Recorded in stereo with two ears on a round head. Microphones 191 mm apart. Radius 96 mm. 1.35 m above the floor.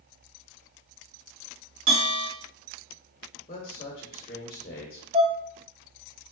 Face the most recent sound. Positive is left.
turn(degrees=-25)  # may be behind; listen again after turning